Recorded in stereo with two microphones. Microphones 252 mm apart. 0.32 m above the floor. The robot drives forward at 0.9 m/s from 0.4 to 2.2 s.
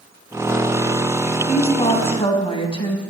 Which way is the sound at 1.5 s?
25° left (ahead or behind).